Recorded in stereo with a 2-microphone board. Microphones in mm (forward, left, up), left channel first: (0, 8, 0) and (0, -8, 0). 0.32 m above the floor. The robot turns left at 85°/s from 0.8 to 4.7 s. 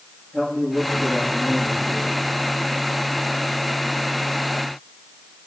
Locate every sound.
0.3 s a man speaking: 155° left, 8.5 m; by 2.2 s 35° left, 8.5 m